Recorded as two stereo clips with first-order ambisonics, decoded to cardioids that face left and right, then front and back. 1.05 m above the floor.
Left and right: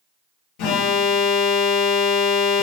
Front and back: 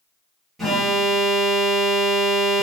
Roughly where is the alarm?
Left.